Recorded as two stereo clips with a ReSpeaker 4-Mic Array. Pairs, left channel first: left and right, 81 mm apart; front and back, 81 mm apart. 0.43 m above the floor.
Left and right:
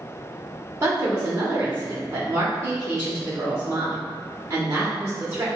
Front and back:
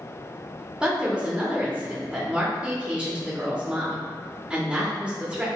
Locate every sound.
0.8 s a woman speaking: 115° right, 0.9 m